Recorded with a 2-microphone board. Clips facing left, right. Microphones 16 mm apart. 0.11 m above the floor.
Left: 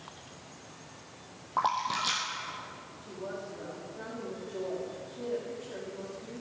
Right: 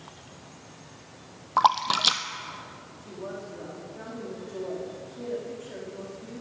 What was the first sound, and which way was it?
A splash, 55° right (ahead or behind).